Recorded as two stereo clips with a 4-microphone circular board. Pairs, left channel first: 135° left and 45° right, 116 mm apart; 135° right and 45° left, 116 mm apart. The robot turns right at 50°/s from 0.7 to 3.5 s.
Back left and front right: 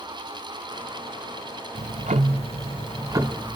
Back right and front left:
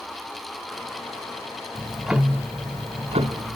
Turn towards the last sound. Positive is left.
turn(degrees=35)